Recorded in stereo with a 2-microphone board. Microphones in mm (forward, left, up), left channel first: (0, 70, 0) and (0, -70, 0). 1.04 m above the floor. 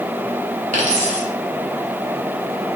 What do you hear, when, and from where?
0.7 s a dropped coin: 55° right (ahead or behind), 1.8 m